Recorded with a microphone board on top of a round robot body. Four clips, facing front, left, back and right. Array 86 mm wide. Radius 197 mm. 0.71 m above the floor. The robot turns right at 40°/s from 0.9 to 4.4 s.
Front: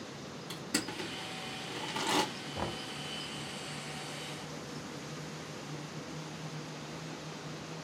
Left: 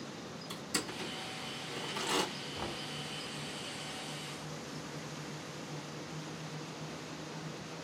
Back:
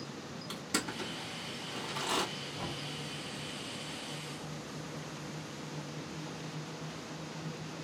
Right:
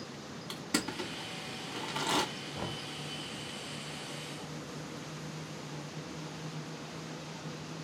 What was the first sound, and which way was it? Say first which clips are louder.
Crushing: right 5 dB, even; 105° right.